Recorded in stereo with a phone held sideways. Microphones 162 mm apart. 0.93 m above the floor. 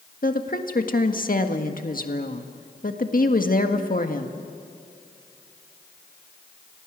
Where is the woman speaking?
60° left (ahead or behind), 1.6 m.